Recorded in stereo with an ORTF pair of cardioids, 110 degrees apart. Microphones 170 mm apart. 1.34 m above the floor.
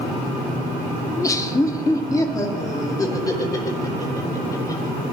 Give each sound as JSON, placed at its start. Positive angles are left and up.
{"t": 1.1, "sound": "laughter", "azimuth_deg": 20, "distance_m": 1.1}